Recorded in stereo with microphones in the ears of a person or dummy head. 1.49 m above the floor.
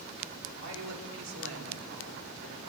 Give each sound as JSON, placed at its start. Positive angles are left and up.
{"t": 0.6, "sound": "a woman speaking", "side_deg": -70, "distance_m": 4.0}